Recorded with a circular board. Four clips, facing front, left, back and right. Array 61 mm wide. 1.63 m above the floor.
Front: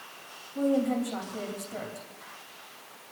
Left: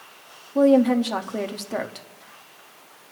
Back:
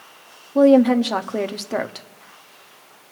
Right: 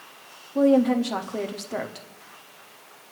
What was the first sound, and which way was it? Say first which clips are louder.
A woman speaking: left 2 dB, back 13 dB; 170° left.